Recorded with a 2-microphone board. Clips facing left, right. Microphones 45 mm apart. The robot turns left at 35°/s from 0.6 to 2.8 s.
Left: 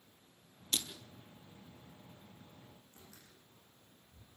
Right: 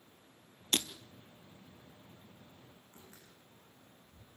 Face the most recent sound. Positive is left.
turn(degrees=-40)  # may be behind; listen again after turning